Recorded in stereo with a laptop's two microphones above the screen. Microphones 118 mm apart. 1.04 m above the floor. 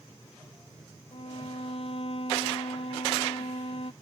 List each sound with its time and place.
1.1 s a violin: 55° left (ahead or behind)